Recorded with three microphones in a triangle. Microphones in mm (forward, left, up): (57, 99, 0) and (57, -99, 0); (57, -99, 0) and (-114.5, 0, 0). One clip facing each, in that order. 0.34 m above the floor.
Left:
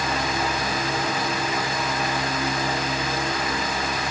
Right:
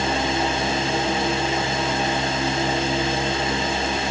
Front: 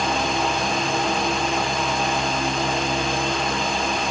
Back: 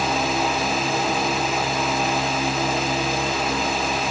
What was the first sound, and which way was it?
Only background noise.